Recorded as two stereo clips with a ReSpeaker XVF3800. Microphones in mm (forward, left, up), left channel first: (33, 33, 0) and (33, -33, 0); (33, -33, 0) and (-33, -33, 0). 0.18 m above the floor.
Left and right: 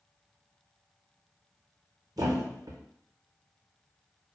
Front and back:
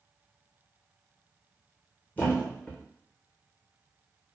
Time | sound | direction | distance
2.2 | a thud | 65° right | 0.8 m